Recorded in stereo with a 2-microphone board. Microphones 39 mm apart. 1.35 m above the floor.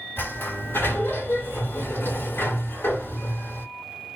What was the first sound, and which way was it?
A sliding door, 65° left (ahead or behind).